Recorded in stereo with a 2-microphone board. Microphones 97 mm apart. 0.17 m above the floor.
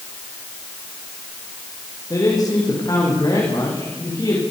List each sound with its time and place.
2.1 s a man speaking: 40° left (ahead or behind), 9 m; by 4.4 s 45° left (ahead or behind), 12 m